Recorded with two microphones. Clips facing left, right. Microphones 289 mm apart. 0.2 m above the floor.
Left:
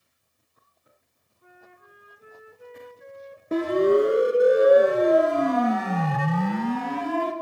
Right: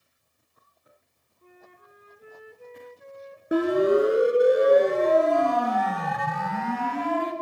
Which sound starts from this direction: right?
A flute, at 1.4 s.